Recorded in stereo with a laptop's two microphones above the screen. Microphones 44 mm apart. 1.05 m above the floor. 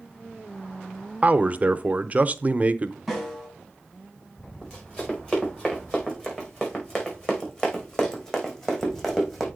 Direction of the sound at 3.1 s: 5° left (ahead or behind).